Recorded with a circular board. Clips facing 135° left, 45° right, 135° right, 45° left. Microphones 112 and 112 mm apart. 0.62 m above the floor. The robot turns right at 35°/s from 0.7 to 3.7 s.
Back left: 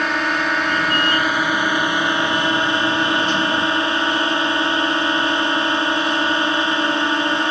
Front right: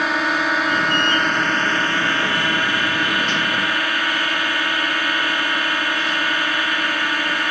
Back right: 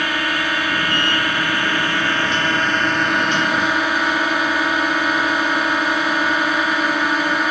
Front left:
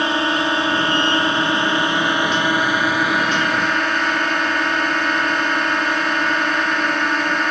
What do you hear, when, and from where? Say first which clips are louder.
0.0 s a drone: even, front left 3 dB; 40° left; by 7.5 s 145° left